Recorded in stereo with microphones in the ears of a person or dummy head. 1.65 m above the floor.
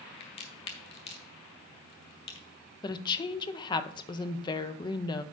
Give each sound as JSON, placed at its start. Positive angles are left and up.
{"t": 0.2, "sound": "a crack", "side_deg": 35, "distance_m": 1.9}
{"t": 2.8, "sound": "a woman speaking", "side_deg": 25, "distance_m": 0.8}